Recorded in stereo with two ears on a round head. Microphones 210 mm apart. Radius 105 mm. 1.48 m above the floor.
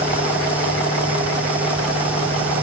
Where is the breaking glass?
No breaking glass in this recording.